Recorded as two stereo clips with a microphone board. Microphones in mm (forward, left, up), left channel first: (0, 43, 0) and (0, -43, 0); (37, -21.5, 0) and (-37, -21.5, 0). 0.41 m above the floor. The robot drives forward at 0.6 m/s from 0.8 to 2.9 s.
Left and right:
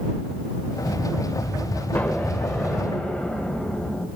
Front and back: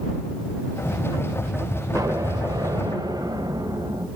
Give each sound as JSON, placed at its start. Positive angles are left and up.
{"t": 1.9, "sound": "an explosion", "azimuth_deg": 160, "distance_m": 0.8}